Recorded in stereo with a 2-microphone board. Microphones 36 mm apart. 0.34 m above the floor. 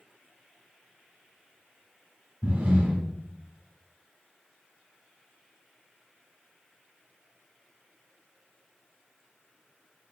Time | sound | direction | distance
2.4 | breathing | 30° right (ahead or behind) | 0.9 m